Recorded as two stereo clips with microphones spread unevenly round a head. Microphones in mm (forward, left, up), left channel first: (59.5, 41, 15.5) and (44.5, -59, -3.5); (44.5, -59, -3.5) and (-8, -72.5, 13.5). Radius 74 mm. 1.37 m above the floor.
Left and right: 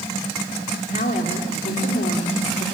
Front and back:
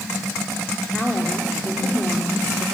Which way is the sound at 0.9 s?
95° left.